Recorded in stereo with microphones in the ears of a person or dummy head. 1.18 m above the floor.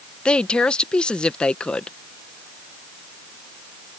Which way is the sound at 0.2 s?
10° left (ahead or behind).